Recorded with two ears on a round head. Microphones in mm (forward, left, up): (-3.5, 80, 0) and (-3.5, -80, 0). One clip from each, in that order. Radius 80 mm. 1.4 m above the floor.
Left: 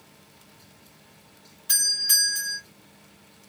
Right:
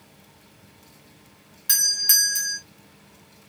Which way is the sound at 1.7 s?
30° right (ahead or behind).